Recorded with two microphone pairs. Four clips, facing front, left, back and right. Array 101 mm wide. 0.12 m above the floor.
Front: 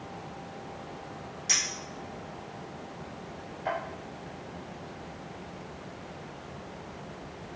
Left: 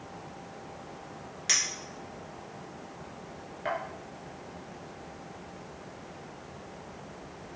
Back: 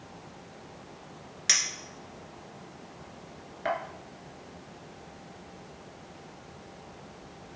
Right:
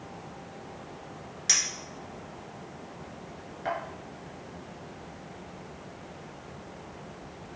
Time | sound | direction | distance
1.5 | a clink | 170° right | 1.2 m